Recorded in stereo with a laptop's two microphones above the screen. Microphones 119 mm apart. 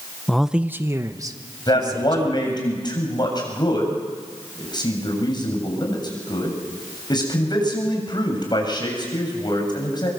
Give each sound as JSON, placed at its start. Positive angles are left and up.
{"t": 0.3, "sound": "a man speaking", "side_deg": 5, "distance_m": 0.6}
{"t": 1.7, "sound": "a man speaking", "side_deg": 40, "distance_m": 8.0}